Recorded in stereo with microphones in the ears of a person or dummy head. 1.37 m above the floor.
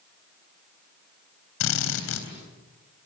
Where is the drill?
70° left (ahead or behind), 3.5 m.